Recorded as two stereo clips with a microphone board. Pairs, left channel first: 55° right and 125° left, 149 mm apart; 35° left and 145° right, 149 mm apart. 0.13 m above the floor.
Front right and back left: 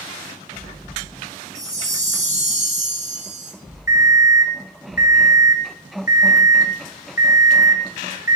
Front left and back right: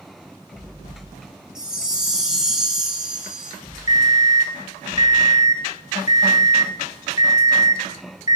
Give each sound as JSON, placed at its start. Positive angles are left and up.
{"t": 1.6, "sound": "a chime", "azimuth_deg": 130, "distance_m": 1.2}
{"t": 3.9, "sound": "an alarm clock", "azimuth_deg": 55, "distance_m": 1.0}